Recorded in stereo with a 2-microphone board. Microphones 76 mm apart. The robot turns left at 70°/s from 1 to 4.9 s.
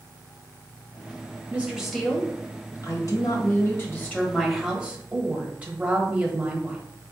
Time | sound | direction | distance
1.5 | a woman speaking | 145° right | 1.1 m